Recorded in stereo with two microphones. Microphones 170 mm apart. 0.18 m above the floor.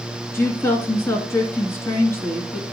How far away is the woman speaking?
About 2.5 m.